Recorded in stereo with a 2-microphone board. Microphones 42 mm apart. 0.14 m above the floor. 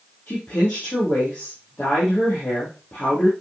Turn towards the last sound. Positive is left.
turn(degrees=50)  # may be behind; listen again after turning